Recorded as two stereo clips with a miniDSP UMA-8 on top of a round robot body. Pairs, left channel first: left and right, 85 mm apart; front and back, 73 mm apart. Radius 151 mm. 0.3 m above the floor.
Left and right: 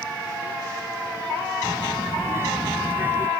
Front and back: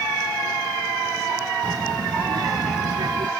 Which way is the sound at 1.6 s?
150° right.